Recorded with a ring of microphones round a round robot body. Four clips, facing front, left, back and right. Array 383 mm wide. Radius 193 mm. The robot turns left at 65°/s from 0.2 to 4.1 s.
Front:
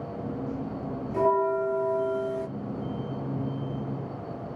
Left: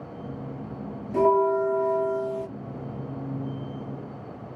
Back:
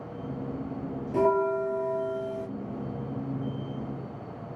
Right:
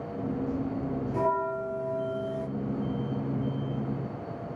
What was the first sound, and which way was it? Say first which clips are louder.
A bell: left 9 dB, even; 140° left.